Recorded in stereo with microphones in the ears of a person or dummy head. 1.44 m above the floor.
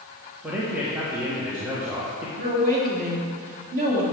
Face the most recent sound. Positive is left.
turn(degrees=-50)  # may be behind; listen again after turning